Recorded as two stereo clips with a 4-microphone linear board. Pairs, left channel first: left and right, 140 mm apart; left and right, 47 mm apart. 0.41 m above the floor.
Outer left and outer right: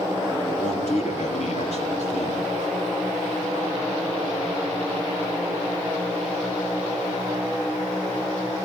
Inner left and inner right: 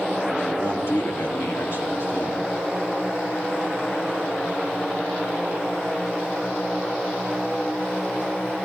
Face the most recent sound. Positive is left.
turn(degrees=60)  # may be behind; listen again after turning